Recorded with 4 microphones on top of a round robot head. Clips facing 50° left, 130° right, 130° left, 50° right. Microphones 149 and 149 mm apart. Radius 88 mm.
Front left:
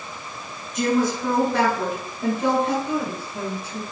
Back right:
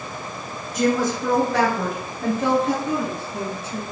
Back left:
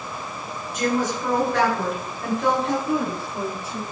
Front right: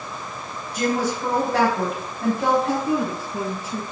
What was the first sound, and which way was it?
A woman speaking, 105° right.